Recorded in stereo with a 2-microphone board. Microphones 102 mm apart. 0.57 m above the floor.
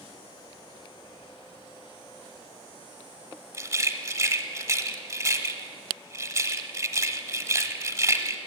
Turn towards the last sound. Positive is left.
turn(degrees=-30)  # may be behind; listen again after turning